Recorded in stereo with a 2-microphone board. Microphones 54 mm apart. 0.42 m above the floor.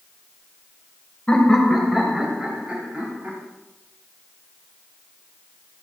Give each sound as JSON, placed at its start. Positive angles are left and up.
{"t": 1.3, "sound": "laughter", "side_deg": 15, "distance_m": 2.0}